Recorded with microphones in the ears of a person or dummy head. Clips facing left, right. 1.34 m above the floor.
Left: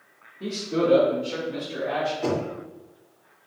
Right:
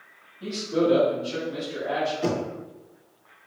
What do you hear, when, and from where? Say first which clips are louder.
0.4 s a man speaking: right 1 dB; 55° left (ahead or behind), 1.2 m; by 2.1 s 45° left (ahead or behind), 2.5 m
2.2 s knocking: left 1 dB; 10° right (ahead or behind), 1.2 m